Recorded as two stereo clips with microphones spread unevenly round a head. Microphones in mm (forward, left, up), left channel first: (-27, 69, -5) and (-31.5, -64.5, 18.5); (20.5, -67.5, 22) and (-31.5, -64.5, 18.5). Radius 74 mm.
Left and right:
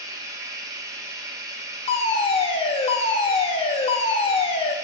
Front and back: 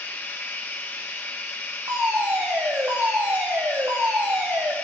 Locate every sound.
0.0 s running water: 35° right, 1.3 m
1.9 s a fire alarm: 125° left, 1.5 m